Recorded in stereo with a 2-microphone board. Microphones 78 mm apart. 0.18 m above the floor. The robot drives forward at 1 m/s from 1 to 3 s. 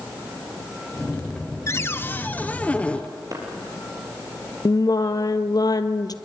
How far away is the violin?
I don't hear a violin.